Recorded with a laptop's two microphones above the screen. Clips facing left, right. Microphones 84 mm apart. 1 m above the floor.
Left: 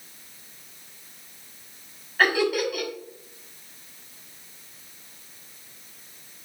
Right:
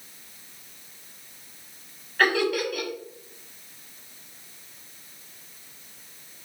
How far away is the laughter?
About 3 m.